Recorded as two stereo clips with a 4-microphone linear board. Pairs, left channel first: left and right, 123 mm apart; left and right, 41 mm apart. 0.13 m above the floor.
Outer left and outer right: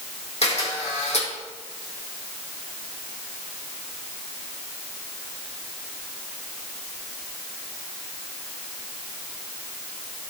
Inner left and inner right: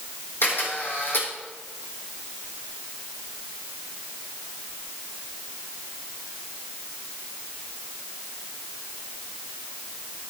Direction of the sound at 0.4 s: 65° left (ahead or behind).